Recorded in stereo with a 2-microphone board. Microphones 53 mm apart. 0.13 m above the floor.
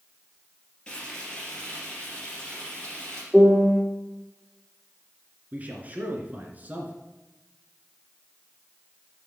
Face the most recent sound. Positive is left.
turn(degrees=-30)  # may be behind; listen again after turning